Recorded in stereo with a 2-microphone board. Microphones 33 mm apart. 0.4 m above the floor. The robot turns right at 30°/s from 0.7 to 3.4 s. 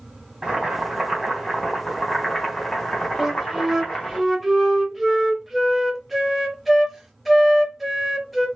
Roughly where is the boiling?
Ahead right.